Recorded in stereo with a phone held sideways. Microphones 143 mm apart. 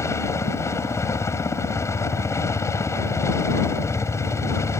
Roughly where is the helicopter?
Centre.